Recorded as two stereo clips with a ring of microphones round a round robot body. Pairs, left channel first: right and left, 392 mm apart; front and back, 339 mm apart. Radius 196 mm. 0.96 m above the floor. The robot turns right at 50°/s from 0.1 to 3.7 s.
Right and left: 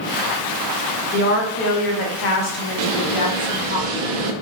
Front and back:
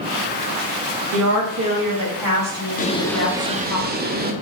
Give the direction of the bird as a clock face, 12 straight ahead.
10 o'clock.